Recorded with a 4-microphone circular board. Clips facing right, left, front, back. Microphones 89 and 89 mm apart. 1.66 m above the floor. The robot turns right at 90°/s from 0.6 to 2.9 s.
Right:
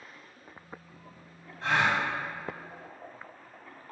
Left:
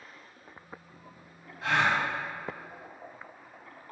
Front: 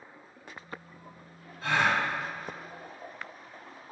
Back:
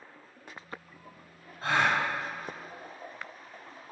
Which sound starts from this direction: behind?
A gasp, at 1.6 s.